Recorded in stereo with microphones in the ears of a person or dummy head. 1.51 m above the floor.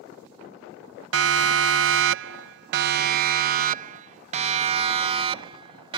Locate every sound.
1.1 s a siren: 75° right (ahead or behind); by 6.0 s 25° right (ahead or behind)